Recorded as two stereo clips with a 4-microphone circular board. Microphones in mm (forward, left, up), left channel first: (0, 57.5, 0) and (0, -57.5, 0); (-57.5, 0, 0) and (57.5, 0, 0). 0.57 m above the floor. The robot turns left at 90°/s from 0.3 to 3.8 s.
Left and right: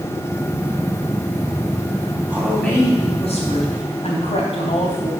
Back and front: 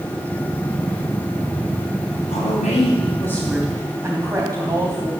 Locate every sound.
2.3 s a woman speaking: 160° right, 3 m; by 5.1 s 65° left, 3 m